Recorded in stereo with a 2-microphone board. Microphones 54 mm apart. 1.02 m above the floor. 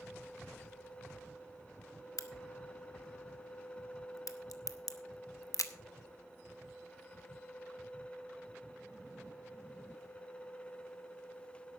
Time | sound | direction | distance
2.2 | a crack | 85° left | 0.9 m